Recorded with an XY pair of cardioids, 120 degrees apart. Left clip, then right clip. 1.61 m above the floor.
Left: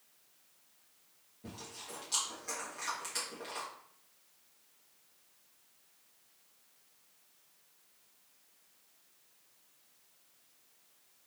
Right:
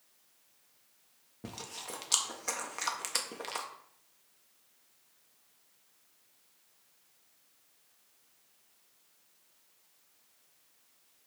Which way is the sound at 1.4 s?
65° right.